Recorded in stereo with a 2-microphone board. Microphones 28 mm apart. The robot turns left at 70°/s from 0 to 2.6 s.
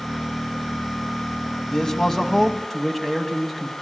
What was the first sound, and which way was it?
A man speaking, 20° left (ahead or behind).